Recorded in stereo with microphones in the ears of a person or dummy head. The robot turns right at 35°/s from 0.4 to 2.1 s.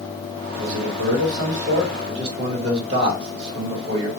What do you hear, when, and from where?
0.6 s a man speaking: 80° right, 1.4 m; by 4.1 s 30° right, 1.4 m